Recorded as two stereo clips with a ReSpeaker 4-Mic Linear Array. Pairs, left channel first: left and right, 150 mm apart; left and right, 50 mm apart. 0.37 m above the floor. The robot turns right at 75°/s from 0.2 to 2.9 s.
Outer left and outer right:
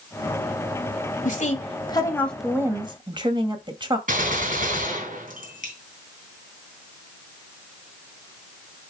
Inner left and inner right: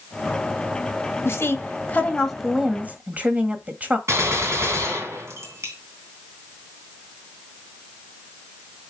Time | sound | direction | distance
1.2 | a woman speaking | 95° left | 1.7 m
4.1 | a gunshot | 65° right (ahead or behind) | 3 m